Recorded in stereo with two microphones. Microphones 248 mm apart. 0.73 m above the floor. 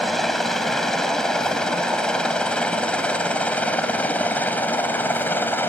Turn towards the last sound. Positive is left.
turn(degrees=10)  # may be behind; listen again after turning